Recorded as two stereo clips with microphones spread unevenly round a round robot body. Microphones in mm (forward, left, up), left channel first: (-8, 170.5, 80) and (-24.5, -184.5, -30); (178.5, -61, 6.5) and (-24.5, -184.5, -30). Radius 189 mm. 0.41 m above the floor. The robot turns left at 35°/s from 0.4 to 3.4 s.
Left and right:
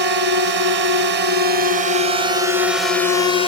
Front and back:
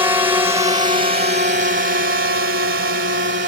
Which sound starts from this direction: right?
A drone, at 0.0 s.